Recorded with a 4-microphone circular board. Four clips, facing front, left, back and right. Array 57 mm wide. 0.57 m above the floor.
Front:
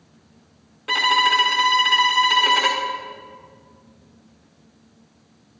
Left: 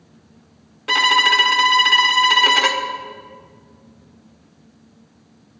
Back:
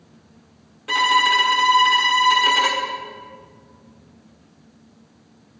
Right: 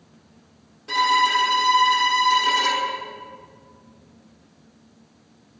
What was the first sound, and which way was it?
A violin, 75° left.